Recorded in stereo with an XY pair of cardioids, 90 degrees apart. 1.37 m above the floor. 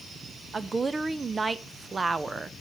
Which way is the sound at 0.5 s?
35° right.